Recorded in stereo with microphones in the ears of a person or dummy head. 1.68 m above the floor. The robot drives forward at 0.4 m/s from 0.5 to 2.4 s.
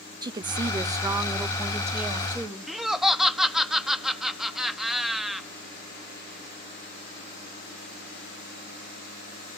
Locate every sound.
0.2 s a woman speaking: 25° right (ahead or behind), 0.6 m; by 2.6 s 10° right (ahead or behind), 1.3 m
2.7 s laughter: 5° right (ahead or behind), 0.6 m